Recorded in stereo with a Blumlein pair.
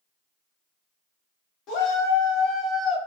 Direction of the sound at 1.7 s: 35° left.